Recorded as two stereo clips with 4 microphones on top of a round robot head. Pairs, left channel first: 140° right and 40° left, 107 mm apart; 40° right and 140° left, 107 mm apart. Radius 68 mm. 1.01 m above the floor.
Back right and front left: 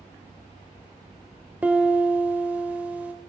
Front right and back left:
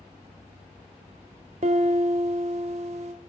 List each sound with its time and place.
1.6 s a piano: 115° left, 1.0 m